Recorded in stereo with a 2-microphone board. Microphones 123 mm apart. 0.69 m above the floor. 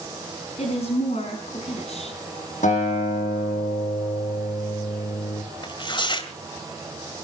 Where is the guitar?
90° left, 8.5 m.